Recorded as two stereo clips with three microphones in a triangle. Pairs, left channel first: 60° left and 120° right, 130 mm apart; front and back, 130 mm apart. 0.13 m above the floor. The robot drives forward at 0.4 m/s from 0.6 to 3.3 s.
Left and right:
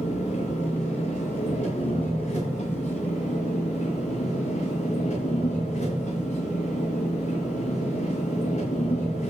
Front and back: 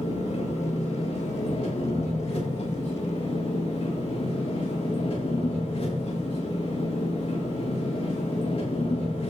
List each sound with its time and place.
0.0 s an engine running: 35° left, 7.5 m; by 9.3 s 40° left, 6.5 m